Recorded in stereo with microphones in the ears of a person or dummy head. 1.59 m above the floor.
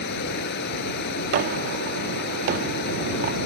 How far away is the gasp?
No gasp in this recording.